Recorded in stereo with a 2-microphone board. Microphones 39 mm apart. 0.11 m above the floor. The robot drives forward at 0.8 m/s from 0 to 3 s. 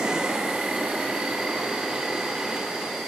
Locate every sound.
0.0 s an insect: 20° right (ahead or behind), 0.8 m; by 3.1 s 5° right (ahead or behind), 3 m